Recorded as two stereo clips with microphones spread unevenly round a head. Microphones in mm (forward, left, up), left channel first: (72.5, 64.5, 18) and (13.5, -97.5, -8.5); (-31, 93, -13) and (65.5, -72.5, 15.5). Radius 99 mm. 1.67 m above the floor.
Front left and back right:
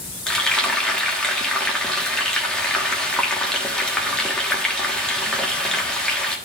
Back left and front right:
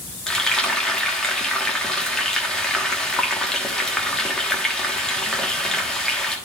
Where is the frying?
15° left, 1.2 m.